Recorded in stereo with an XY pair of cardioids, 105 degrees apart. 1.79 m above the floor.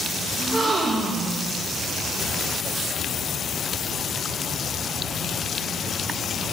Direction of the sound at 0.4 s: 25° right.